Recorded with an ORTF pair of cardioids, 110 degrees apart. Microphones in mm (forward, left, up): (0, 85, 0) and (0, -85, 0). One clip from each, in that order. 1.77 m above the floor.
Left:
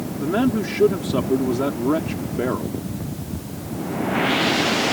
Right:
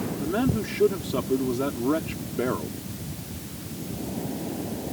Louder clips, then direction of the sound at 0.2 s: Left 6 dB; 35° left.